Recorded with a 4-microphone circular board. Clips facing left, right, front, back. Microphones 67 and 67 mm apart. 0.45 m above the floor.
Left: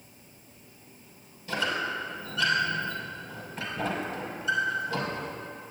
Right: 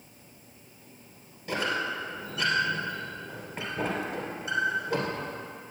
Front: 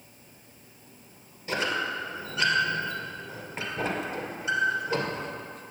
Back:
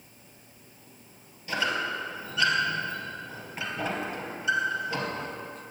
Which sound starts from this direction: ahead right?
A squeak, at 1.5 s.